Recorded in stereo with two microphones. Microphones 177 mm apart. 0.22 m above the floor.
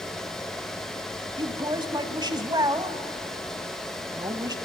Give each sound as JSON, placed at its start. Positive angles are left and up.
{"t": 1.4, "sound": "a woman speaking", "side_deg": -25, "distance_m": 1.3}